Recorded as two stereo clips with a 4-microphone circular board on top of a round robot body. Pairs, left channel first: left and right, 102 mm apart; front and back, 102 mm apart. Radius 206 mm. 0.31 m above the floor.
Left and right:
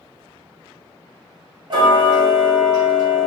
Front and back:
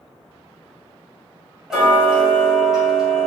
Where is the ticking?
95° right, 1.6 m.